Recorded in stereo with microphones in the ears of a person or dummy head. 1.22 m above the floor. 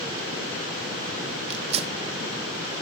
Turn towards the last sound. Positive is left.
turn(degrees=-40)  # may be behind; listen again after turning